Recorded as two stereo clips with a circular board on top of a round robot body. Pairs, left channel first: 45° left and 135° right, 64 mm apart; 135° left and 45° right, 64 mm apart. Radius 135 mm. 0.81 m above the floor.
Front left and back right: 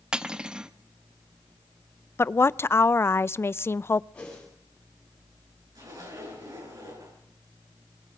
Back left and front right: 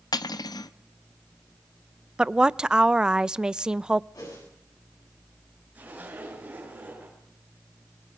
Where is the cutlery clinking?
145° left, 0.7 m.